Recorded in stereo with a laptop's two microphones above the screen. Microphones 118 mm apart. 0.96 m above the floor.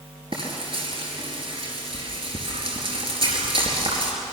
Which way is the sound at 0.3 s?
50° right (ahead or behind).